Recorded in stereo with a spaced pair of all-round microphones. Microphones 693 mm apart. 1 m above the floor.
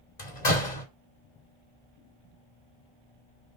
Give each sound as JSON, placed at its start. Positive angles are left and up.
{"t": 0.2, "sound": "a door slam", "side_deg": 80, "distance_m": 2.5}